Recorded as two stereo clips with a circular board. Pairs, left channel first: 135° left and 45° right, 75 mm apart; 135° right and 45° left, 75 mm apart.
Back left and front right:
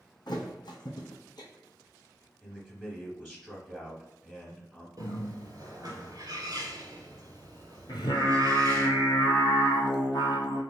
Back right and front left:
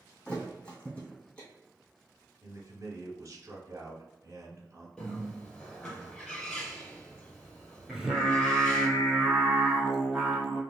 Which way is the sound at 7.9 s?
135° left.